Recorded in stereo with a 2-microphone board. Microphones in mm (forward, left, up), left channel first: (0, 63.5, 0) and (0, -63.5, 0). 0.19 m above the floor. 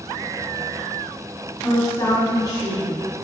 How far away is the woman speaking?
About 1.7 m.